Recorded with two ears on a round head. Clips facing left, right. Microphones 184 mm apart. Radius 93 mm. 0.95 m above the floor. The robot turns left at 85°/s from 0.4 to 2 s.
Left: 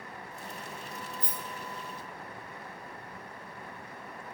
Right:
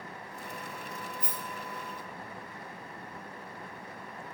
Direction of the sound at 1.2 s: 80° left.